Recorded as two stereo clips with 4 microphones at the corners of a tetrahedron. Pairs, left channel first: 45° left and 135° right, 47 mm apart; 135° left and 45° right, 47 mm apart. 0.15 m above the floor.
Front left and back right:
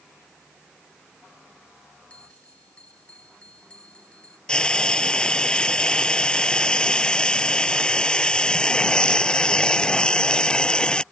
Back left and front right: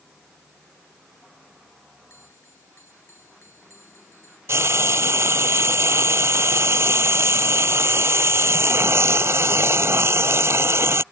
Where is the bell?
105° left.